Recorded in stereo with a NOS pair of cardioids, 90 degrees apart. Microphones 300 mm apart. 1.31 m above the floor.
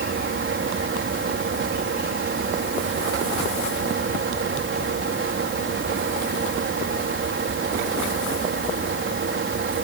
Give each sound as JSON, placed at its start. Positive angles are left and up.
{"t": 0.0, "sound": "a fan", "azimuth_deg": -40}